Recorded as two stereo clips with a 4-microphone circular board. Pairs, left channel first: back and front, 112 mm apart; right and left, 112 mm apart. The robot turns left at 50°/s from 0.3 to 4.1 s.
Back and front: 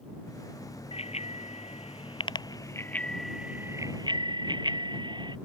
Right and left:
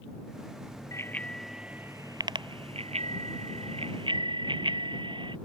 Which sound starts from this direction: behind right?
A bicycle bell, at 0.9 s.